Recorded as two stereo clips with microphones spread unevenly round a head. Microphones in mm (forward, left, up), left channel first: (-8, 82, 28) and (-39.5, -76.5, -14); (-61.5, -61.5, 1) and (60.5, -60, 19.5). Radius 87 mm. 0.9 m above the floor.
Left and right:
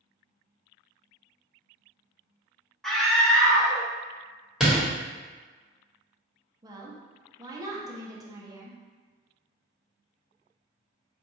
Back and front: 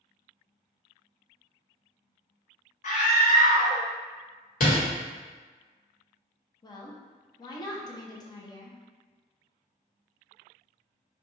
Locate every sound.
2.8 s a scream: 170° left, 1.0 m
4.6 s a door slam: 175° left, 1.3 m
6.6 s a woman speaking: 145° right, 0.7 m